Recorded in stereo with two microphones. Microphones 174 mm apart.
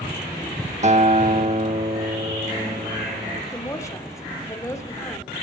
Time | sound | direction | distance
0.8 | a guitar | 40° right (ahead or behind) | 0.9 m
3.5 | a woman speaking | 15° left (ahead or behind) | 1.4 m